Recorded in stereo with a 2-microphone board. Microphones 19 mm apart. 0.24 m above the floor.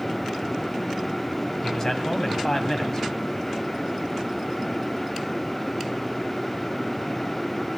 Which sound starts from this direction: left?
A man speaking, at 1.6 s.